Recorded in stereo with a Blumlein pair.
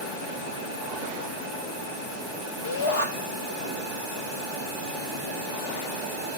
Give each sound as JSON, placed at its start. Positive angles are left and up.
{"t": 2.6, "sound": "a shout", "azimuth_deg": 60, "distance_m": 4.5}